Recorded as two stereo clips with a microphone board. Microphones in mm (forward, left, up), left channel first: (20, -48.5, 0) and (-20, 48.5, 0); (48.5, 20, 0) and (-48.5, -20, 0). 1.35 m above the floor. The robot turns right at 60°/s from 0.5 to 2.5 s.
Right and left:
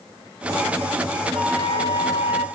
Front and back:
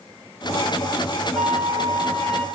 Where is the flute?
125° left, 5.5 m; by 2.5 s 170° right, 5.5 m.